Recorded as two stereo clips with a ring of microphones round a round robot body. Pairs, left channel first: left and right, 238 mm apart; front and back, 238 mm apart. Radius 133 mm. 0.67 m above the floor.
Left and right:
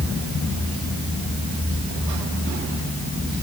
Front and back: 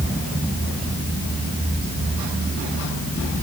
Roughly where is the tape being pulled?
I don't hear tape being pulled.